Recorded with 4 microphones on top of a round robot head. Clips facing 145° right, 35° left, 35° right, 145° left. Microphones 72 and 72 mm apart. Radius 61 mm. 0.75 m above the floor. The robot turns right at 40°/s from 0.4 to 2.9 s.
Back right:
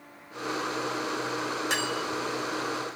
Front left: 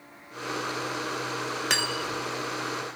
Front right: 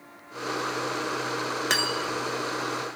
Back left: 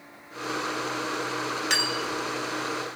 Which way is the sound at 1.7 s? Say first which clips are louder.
Even, front right 1 dB; 10° left.